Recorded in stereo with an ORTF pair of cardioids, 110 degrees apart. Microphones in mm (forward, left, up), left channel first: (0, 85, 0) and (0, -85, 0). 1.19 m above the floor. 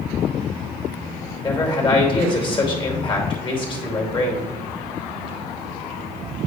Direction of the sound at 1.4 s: 30° left.